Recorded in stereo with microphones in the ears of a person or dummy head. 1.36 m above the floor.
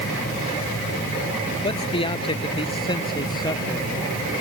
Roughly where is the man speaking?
Left.